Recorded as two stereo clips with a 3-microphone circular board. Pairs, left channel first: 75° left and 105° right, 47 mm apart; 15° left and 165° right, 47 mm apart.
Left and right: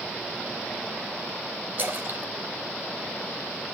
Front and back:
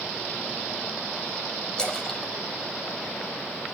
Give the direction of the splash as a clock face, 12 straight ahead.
2 o'clock.